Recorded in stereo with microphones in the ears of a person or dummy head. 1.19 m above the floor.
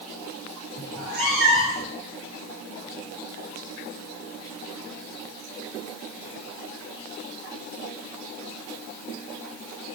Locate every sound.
0.9 s a cat meowing: 80° right, 3 m